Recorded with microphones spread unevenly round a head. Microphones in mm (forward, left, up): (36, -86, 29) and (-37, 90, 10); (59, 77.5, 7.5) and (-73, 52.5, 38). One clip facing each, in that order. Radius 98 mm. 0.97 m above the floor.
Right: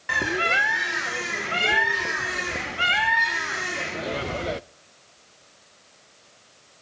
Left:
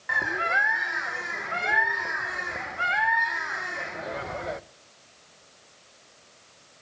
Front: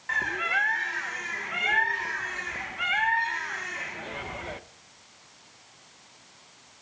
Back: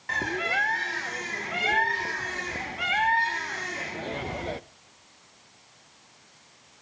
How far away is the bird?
About 0.6 m.